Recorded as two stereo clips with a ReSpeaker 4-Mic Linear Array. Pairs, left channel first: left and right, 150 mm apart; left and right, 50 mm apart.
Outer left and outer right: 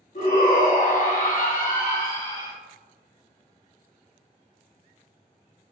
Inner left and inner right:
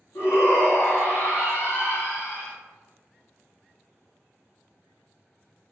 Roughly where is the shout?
Left.